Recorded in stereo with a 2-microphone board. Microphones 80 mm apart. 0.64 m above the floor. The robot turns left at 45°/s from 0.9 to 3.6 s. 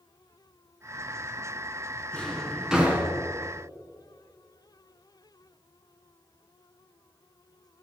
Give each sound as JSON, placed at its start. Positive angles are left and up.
{"t": 2.1, "sound": "a drawer", "side_deg": 15, "distance_m": 2.5}